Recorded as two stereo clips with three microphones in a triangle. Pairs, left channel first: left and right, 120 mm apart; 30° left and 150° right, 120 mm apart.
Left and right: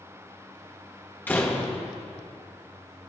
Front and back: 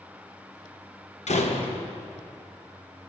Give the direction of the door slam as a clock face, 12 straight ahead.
11 o'clock.